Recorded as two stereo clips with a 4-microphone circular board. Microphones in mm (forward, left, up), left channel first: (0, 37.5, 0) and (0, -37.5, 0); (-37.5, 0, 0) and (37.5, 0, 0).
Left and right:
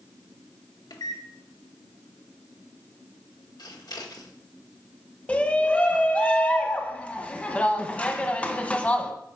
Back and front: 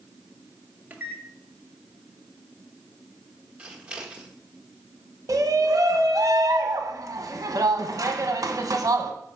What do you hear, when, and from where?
0.9 s a microwave: 70° left, 1.3 m
3.6 s scissors: 80° left, 1.3 m
5.3 s a shout: 25° left, 1.2 m